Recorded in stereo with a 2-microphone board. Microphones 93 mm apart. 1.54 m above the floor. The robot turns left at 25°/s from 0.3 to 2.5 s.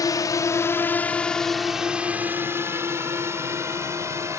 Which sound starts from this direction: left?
A drone, at 0.0 s.